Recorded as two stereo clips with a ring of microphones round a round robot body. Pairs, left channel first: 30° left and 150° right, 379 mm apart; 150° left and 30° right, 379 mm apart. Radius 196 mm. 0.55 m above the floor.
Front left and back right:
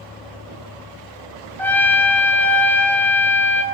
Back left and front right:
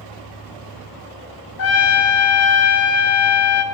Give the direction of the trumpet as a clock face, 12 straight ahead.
8 o'clock.